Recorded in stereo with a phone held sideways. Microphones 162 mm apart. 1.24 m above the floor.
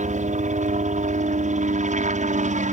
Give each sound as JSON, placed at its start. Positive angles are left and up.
{"t": 0.0, "sound": "a helicopter", "side_deg": -50}